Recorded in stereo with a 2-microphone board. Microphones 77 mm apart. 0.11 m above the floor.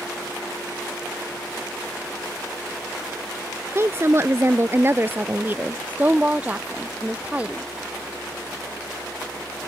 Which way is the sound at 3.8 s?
35° right (ahead or behind).